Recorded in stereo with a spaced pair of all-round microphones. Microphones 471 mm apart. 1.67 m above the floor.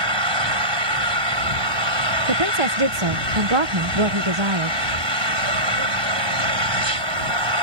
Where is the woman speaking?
80° right.